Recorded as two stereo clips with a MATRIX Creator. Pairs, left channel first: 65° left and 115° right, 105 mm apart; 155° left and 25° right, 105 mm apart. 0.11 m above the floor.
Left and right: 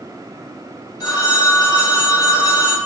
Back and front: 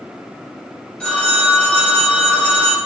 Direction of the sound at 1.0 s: 85° left.